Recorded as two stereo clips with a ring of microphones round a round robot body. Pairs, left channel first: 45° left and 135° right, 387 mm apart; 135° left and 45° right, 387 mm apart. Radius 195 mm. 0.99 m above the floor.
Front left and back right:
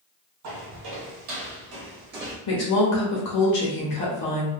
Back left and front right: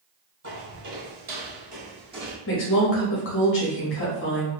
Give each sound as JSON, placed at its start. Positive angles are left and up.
{"t": 0.4, "sound": "footsteps", "azimuth_deg": -105, "distance_m": 1.7}
{"t": 2.5, "sound": "a woman speaking", "azimuth_deg": 80, "distance_m": 0.8}